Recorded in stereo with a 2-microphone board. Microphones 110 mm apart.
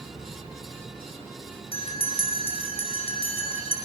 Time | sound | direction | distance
1.7 | a bell | 60° left (ahead or behind) | 5 m